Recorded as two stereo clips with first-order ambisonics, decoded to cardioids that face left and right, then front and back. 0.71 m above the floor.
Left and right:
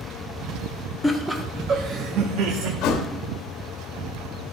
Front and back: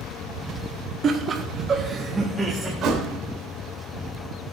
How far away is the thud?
About 1.1 m.